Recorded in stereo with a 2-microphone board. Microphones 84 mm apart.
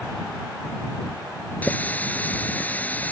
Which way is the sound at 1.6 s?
20° left (ahead or behind).